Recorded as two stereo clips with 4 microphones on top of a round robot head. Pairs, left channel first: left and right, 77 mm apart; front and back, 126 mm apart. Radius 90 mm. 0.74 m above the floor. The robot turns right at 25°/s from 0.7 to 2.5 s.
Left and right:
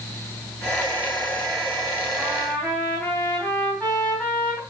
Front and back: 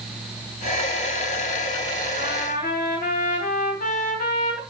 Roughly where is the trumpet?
Ahead.